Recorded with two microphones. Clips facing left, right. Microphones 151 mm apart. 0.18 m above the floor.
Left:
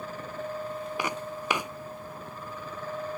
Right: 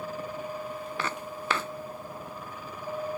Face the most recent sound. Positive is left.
turn(degrees=15)  # may be behind; listen again after turning